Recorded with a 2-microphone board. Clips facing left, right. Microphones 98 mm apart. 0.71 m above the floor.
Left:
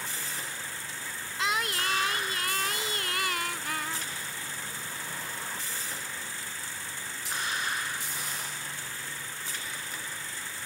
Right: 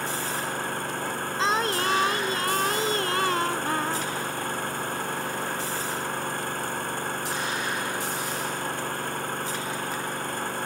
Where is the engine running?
60° right (ahead or behind).